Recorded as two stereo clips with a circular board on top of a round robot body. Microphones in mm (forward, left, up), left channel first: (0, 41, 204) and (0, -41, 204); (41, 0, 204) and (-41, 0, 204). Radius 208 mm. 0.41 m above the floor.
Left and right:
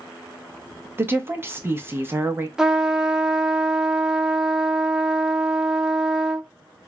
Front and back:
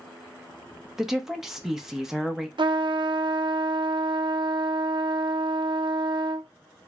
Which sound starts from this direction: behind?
A trumpet, at 2.6 s.